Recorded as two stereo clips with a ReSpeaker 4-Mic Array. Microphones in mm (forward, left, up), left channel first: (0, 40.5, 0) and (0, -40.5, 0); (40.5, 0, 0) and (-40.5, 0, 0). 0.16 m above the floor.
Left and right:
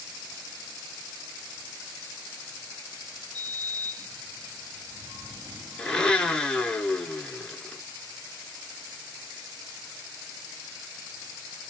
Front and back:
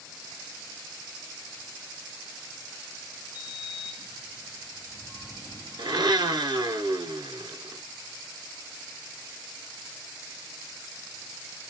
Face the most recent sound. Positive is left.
turn(degrees=165)